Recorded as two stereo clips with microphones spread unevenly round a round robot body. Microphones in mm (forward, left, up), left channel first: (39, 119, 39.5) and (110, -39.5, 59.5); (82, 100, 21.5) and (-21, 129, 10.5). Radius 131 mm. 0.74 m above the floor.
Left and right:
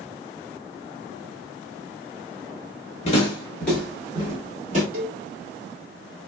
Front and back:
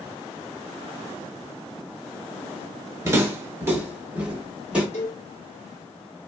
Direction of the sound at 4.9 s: 40° right.